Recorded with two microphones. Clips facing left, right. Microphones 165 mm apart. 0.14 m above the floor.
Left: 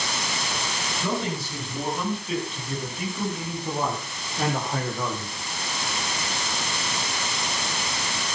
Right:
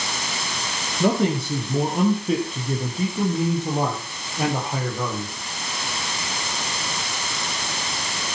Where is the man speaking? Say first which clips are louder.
Right 9 dB; 65° right (ahead or behind), 5.5 m; by 5.3 s 5° left (ahead or behind), 5 m.